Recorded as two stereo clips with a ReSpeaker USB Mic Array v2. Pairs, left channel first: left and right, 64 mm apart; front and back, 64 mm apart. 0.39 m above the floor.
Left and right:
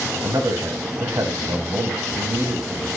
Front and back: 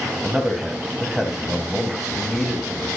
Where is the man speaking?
95° right, 2.5 m.